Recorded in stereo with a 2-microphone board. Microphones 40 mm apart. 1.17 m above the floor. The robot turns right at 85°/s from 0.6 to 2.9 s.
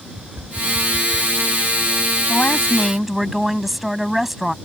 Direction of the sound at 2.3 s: 135° left.